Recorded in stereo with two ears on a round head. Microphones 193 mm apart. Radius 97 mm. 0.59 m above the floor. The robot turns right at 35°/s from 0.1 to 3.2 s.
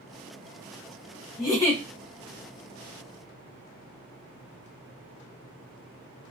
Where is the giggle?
20° left (ahead or behind), 0.7 m; by 1.8 s 5° left (ahead or behind), 0.7 m.